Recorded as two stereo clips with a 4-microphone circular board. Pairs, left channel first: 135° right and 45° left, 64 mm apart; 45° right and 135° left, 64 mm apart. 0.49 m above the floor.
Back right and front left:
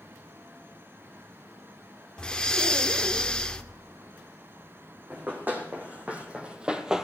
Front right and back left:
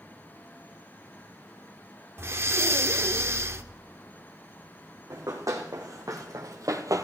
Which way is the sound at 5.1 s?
105° left.